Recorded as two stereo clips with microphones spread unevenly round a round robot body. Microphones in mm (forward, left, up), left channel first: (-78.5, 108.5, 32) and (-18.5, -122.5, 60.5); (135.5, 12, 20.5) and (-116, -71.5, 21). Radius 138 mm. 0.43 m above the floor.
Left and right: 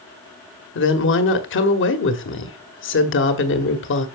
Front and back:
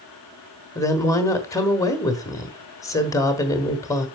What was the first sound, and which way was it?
A woman speaking, 95° left.